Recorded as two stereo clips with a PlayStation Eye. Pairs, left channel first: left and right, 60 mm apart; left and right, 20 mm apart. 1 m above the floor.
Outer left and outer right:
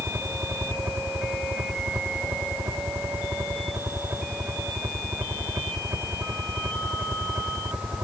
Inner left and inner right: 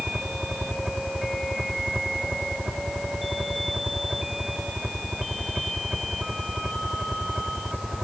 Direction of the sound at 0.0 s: 45° right (ahead or behind).